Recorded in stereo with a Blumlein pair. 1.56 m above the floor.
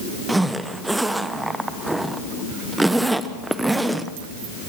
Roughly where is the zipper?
Ahead.